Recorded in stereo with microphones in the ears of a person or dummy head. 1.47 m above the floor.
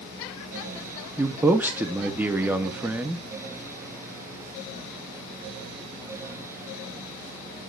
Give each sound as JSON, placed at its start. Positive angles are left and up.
{"t": 1.2, "sound": "a man speaking", "side_deg": -15, "distance_m": 0.7}